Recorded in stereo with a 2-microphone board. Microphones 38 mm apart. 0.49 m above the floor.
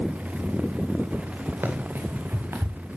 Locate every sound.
1.6 s running footsteps: 75° right (ahead or behind), 4 m; by 2.8 s 80° right, 2.5 m